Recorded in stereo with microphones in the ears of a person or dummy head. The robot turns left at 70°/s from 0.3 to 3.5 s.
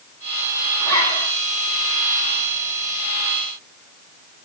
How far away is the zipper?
About 6.5 m.